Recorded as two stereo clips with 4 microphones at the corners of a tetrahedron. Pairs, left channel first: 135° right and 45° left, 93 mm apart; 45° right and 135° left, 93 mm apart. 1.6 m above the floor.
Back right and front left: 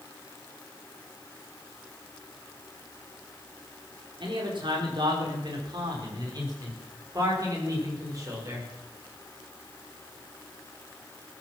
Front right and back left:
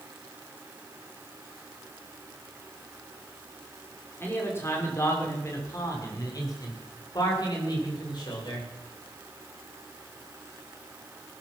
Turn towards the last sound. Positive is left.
turn(degrees=-10)